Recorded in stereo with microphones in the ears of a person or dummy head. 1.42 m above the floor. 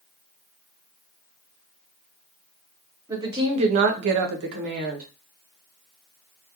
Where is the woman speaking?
20° right (ahead or behind), 0.7 m; by 5.1 s 50° right (ahead or behind), 0.8 m.